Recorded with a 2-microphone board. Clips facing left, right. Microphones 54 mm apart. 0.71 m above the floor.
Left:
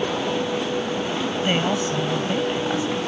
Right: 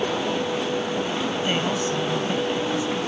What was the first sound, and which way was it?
A woman speaking, 20° left (ahead or behind).